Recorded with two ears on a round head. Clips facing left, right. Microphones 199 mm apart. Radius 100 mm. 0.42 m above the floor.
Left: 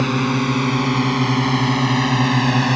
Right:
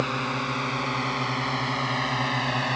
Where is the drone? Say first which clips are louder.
Left 11 dB; 65° left (ahead or behind).